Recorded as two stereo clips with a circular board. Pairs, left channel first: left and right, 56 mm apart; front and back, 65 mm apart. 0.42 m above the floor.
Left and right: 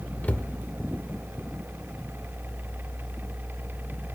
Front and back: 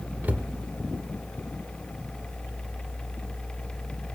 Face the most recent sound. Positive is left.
turn(degrees=135)